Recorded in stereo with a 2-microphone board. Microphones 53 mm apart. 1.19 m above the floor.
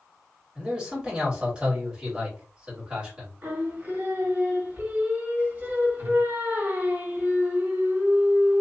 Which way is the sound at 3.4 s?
45° right (ahead or behind).